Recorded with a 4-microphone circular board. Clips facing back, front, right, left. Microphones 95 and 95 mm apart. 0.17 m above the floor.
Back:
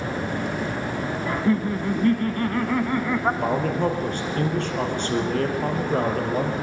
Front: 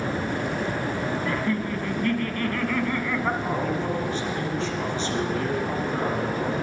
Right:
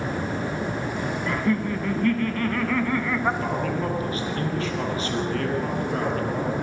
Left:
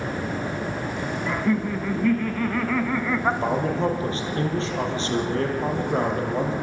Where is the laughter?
165° left, 1.4 m.